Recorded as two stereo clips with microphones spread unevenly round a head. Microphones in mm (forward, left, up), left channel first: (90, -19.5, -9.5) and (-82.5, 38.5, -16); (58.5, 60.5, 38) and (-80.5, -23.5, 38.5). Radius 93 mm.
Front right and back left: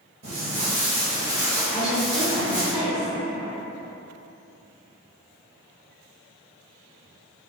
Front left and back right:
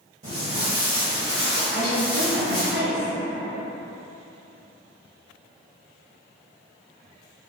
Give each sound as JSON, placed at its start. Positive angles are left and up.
{"t": 0.2, "sound": "footsteps", "azimuth_deg": -160, "distance_m": 1.4}
{"t": 1.7, "sound": "a woman speaking", "azimuth_deg": -115, "distance_m": 1.3}